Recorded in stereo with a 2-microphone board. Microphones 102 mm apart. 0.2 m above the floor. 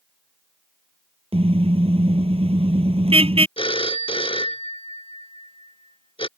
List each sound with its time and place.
1.3 s a car horn: 75° right (ahead or behind)
3.6 s a phone ringing: 65° left (ahead or behind)